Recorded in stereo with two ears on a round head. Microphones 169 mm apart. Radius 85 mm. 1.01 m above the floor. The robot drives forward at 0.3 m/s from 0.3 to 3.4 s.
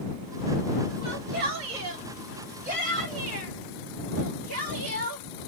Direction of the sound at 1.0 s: 55° right (ahead or behind).